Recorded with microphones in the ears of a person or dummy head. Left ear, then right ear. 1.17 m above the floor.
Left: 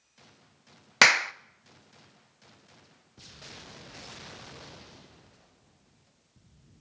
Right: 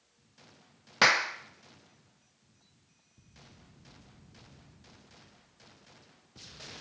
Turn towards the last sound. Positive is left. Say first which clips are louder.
# left 4 dB
turn(degrees=55)  # may be behind; listen again after turning